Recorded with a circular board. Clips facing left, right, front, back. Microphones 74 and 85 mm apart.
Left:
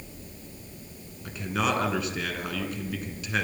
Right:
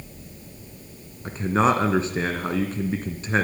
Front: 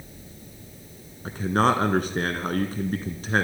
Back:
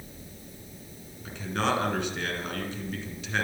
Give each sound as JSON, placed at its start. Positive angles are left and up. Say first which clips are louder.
{"t": 1.2, "sound": "a man speaking", "louder": "right 8 dB, front 7 dB", "azimuth_deg": -40, "distance_m": 2.5}